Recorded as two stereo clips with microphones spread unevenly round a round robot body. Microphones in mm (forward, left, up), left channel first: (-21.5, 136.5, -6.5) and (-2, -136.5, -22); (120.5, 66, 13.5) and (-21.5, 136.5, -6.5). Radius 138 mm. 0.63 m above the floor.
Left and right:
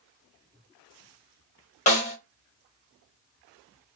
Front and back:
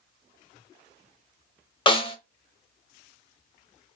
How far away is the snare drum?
About 0.7 m.